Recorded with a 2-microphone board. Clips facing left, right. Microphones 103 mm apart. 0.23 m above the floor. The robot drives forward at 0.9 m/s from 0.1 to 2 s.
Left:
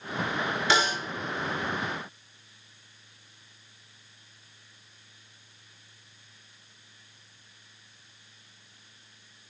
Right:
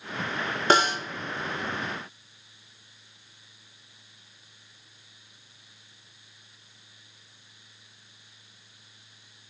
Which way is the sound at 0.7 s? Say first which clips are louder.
Right 5 dB; 50° right (ahead or behind).